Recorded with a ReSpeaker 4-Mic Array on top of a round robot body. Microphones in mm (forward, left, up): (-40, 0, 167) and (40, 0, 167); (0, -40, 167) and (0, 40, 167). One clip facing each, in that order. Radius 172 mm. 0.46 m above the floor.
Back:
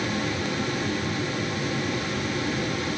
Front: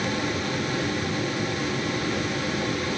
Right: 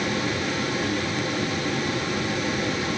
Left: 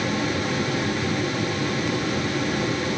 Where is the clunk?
I don't hear a clunk.